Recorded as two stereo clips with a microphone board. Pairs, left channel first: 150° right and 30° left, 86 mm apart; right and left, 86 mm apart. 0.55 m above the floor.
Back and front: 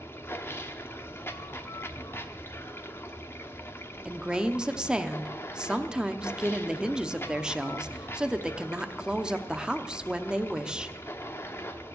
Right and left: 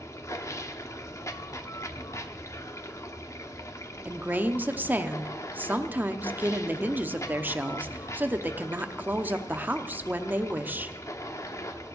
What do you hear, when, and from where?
0.0 s running water: 110° right, 0.9 m
4.0 s a woman speaking: 90° left, 0.7 m